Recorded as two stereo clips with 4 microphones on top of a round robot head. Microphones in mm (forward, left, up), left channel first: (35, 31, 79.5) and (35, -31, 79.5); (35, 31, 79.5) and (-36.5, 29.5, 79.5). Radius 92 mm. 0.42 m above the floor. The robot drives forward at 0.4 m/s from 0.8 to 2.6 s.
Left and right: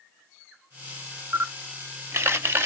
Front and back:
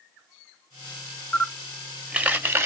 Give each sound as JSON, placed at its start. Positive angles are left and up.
{"t": 1.3, "sound": "a camera shutter", "azimuth_deg": -70, "distance_m": 0.6}